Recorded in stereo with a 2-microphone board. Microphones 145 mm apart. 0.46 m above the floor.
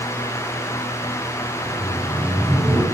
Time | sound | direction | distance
1.6 | laughter | 10° right (ahead or behind) | 3.5 m